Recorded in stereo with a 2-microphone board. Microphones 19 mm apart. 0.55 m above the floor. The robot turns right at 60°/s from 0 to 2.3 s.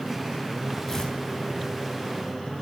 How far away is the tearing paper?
About 3.5 m.